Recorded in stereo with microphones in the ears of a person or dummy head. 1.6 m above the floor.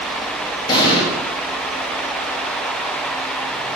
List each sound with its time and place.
0.7 s an explosion: 30° left (ahead or behind), 2 m